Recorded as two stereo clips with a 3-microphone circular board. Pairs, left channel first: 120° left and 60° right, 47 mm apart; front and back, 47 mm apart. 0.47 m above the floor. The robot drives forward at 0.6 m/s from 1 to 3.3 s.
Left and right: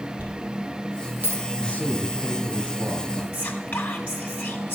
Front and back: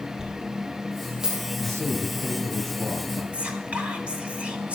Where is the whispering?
145° left, 1.6 m.